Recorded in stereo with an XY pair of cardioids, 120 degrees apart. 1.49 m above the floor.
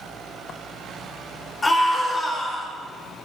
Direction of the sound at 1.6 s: 25° left.